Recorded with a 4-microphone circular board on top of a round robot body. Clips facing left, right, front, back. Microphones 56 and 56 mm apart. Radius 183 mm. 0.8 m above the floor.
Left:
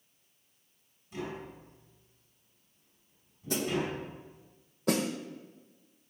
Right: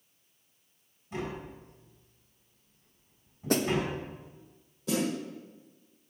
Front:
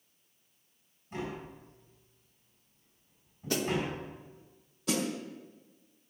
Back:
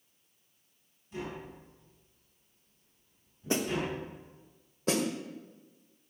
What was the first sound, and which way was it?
Tapping, 55° right.